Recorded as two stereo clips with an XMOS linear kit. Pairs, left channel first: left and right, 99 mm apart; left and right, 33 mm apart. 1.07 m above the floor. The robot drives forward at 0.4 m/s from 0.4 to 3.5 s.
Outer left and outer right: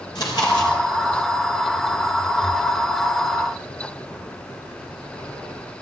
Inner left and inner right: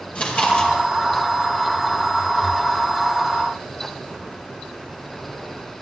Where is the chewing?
45° left (ahead or behind), 4.5 m.